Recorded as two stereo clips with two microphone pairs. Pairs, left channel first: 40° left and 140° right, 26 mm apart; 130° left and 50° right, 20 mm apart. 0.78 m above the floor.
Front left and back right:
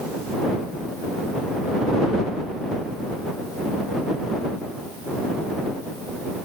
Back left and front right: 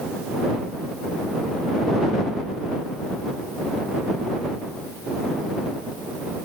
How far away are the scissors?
No scissors in this recording.